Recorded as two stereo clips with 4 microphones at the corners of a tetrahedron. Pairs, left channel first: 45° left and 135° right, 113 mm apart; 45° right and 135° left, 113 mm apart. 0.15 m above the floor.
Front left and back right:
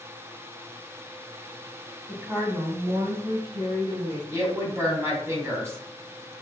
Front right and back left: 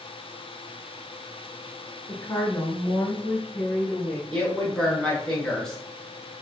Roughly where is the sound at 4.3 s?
Behind right.